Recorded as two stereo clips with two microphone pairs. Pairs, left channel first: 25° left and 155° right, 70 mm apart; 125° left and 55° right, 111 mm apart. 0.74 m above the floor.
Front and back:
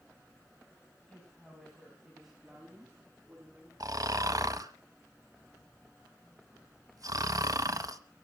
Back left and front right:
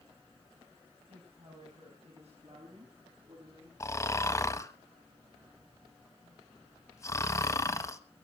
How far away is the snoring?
About 1.0 m.